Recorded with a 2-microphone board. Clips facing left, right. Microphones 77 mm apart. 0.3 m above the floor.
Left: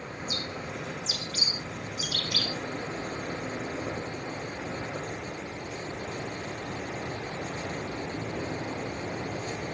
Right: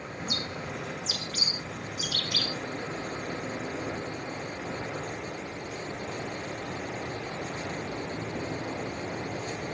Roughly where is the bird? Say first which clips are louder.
Right 1 dB; right.